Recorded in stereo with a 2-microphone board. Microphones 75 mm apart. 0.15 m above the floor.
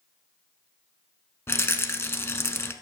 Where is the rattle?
35° left (ahead or behind), 0.5 m.